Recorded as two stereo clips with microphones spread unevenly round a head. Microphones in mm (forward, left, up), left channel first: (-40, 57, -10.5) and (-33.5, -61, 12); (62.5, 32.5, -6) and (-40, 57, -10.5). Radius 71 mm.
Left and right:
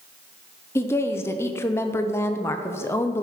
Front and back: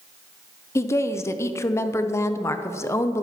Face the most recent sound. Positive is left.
turn(degrees=45)